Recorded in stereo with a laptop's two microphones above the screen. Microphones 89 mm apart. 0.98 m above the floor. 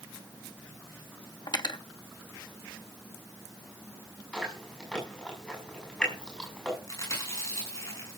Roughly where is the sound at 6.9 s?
Left.